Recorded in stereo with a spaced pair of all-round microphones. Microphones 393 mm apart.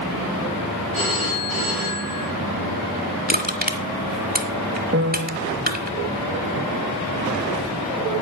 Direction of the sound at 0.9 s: 65° left (ahead or behind).